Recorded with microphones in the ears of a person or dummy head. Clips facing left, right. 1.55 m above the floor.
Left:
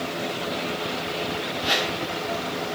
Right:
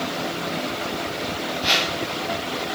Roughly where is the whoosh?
Right.